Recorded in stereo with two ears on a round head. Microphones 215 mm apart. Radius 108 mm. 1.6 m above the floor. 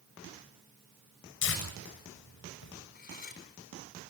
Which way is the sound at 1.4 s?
55° left (ahead or behind).